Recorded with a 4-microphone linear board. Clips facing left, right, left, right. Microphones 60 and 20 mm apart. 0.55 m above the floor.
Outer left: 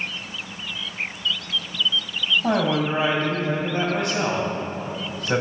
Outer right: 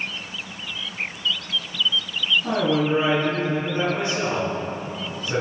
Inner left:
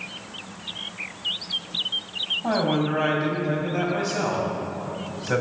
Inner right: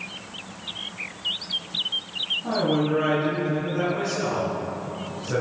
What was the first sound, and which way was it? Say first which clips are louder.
A man speaking: even, even; 70° left (ahead or behind).